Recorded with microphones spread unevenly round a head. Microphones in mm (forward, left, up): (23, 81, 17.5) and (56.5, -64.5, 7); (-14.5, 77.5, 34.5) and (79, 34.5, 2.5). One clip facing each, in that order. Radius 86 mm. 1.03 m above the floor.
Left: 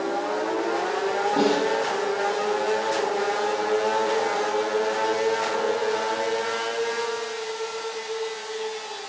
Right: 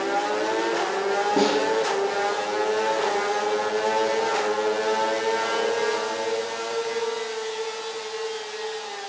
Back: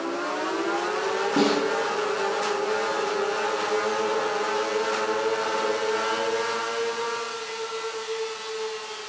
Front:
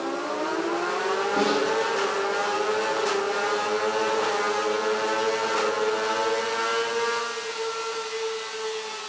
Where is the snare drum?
155° right, 8 m.